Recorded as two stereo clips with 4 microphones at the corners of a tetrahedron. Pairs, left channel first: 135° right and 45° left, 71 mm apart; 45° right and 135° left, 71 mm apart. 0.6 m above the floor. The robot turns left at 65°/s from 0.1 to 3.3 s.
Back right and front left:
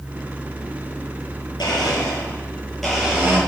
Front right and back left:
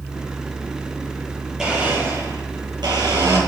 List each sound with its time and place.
1.6 s a blender: 140° right, 10 m; by 3.4 s 105° left, 10 m